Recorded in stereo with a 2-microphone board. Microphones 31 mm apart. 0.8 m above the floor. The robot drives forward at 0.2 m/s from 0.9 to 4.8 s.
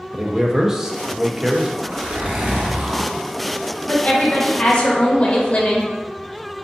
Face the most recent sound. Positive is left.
turn(degrees=30)  # may be behind; listen again after turning